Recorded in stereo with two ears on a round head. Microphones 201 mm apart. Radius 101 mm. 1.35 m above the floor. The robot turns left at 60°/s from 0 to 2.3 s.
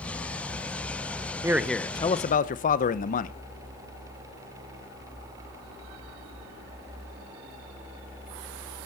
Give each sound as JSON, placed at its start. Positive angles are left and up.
{"t": 1.4, "sound": "a man speaking", "azimuth_deg": -165, "distance_m": 0.7}